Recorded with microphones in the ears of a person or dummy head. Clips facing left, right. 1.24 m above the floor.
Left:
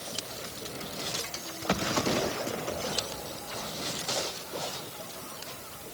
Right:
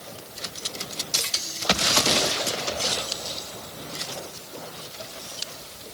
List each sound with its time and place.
Only background noise.